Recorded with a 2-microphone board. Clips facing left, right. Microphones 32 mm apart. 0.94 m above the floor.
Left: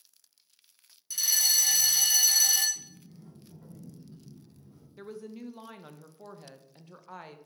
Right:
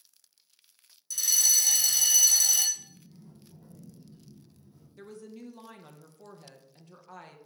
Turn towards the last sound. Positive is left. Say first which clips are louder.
# left 3 dB
turn(degrees=15)  # may be behind; listen again after turning